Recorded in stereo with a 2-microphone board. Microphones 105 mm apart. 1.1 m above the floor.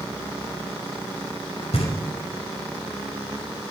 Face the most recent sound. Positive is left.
turn(degrees=80)